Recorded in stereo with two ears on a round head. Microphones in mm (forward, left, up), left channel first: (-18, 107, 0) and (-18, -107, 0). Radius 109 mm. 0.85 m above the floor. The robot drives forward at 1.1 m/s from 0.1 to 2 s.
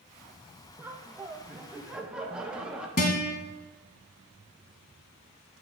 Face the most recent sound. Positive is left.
turn(degrees=40)  # may be behind; listen again after turning